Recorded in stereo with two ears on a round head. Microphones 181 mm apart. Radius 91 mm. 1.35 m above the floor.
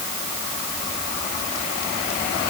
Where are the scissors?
I don't hear scissors.